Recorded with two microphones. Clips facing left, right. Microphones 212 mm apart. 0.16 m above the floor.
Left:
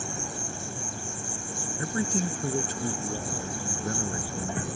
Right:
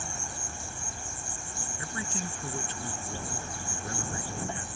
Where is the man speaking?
45° left (ahead or behind).